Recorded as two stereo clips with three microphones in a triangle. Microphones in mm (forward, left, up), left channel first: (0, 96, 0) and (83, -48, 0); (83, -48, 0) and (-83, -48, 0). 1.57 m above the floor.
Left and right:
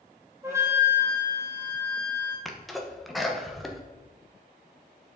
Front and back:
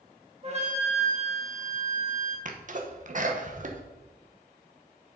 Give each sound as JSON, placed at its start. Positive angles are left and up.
{"t": 0.4, "sound": "a flute", "azimuth_deg": -130, "distance_m": 1.8}
{"t": 2.5, "sound": "a sneeze", "azimuth_deg": -150, "distance_m": 0.9}